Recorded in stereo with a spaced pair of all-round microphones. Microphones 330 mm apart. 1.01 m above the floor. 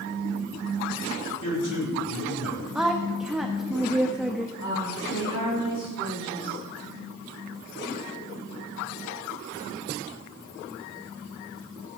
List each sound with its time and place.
1.4 s a man speaking: 75° left (ahead or behind), 4.5 m
2.8 s a woman speaking: centre (ahead or behind), 1.0 m
4.6 s a woman speaking: 75° left (ahead or behind), 5.5 m